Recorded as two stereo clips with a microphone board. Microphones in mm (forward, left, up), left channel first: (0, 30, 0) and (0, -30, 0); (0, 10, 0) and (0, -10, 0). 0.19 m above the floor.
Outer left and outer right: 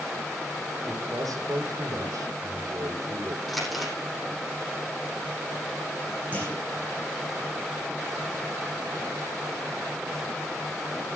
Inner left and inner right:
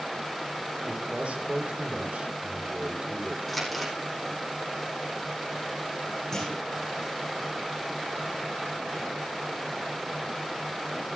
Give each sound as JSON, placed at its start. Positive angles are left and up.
{"t": 0.9, "sound": "a man speaking", "side_deg": -75, "distance_m": 8.5}
{"t": 3.5, "sound": "crumpling", "side_deg": 0, "distance_m": 9.0}
{"t": 6.3, "sound": "a clunk", "side_deg": 25, "distance_m": 7.0}